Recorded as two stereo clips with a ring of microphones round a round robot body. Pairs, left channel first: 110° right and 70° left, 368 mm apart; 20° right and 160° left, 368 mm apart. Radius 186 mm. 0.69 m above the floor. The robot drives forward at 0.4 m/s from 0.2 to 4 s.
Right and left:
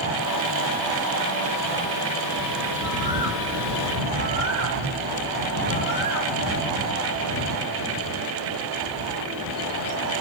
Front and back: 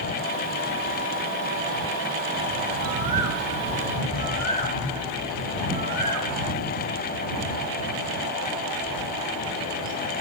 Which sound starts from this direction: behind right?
A bird, at 2.7 s.